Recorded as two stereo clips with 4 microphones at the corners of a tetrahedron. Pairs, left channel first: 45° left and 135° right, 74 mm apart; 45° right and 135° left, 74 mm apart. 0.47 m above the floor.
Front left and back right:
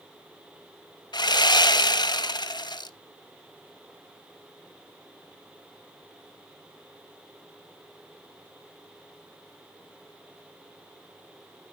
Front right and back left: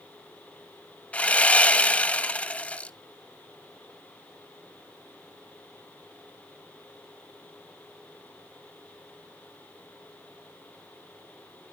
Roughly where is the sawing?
Ahead left.